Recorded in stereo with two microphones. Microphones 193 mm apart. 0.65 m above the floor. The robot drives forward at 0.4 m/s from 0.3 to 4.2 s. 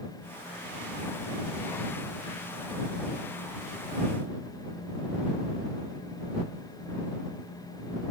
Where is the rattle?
No rattle in this recording.